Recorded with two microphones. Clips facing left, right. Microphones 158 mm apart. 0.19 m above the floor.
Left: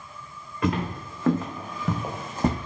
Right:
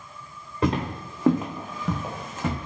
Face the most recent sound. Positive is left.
turn(degrees=45)  # may be behind; listen again after turning